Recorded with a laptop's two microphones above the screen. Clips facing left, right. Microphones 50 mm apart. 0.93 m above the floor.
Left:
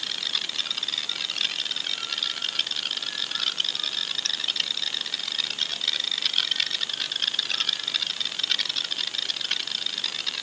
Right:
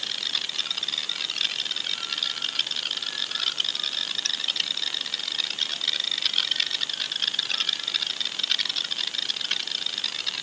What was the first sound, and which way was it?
Only background noise.